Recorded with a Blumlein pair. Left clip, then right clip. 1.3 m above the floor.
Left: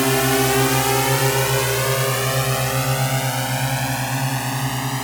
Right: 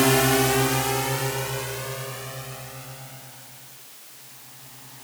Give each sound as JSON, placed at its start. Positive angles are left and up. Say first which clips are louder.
{"t": 0.0, "sound": "a drone", "louder": "left 2 dB", "azimuth_deg": 0}